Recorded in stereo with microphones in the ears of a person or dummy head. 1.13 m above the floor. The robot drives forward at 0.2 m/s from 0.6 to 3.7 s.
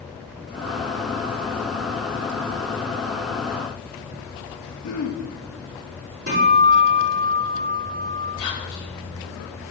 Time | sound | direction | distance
4.8 | throat clearing | 55° left (ahead or behind) | 1.5 m
6.3 | a guitar | 50° right (ahead or behind) | 3.5 m
8.4 | whispering | 25° left (ahead or behind) | 2.5 m